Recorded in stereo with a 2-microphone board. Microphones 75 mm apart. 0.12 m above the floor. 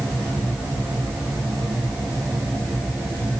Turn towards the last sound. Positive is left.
No sound to turn to.